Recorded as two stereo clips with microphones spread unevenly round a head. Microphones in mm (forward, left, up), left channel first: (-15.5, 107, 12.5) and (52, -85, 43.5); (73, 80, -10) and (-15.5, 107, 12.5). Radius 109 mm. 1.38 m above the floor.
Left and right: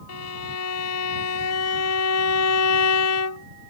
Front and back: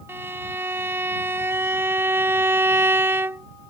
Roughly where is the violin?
Left.